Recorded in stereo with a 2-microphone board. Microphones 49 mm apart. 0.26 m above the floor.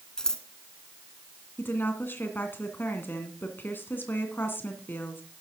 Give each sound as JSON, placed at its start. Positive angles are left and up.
{"t": 0.2, "sound": "scissors", "side_deg": 15, "distance_m": 1.4}
{"t": 1.6, "sound": "a woman speaking", "side_deg": 45, "distance_m": 2.0}